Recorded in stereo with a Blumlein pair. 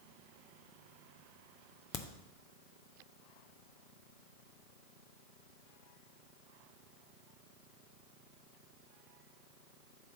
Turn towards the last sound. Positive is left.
turn(degrees=25)